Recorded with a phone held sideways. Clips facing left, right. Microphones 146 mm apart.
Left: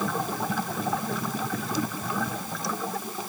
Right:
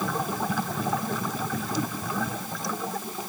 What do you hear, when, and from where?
Only background noise.